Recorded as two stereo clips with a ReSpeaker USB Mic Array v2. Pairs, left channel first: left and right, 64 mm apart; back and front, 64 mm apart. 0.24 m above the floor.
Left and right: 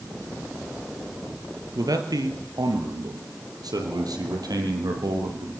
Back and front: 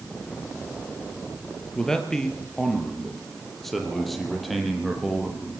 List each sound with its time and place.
1.8 s a man speaking: 100° right, 4.5 m; by 5.5 s 90° right, 8.5 m